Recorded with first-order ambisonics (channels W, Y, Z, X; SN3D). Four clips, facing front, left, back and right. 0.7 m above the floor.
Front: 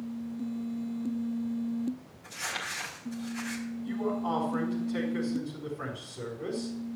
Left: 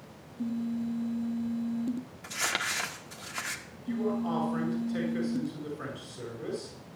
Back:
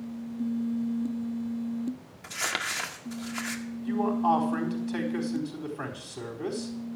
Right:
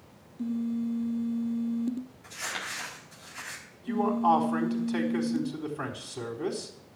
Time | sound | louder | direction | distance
2.2 | crumpling | left 6 dB, back 5 dB | 140° left | 1.6 m
3.8 | a man speaking | right 6 dB, back 7 dB | 130° right | 4.5 m